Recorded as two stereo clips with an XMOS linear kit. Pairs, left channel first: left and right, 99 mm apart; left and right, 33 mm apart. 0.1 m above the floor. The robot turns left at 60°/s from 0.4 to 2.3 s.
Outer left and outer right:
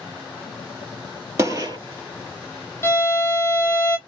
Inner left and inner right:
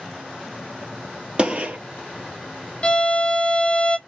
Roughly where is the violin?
Left.